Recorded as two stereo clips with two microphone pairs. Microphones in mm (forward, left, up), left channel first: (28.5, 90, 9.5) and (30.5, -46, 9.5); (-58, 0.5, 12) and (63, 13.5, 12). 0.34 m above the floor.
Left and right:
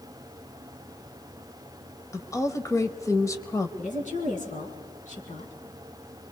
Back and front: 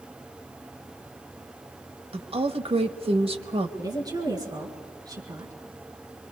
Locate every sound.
2.1 s a woman speaking: 30° left, 1.3 m
3.8 s a woman speaking: 65° left, 4.5 m